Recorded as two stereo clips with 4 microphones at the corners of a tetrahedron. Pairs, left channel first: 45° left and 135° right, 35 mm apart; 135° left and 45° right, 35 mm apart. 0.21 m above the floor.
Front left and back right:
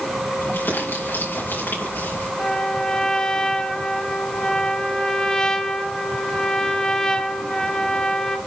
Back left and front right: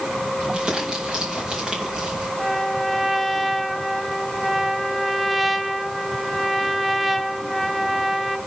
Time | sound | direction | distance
0.4 | crumpling | 25° left | 5.5 m
2.4 | a trumpet | 40° left | 1.3 m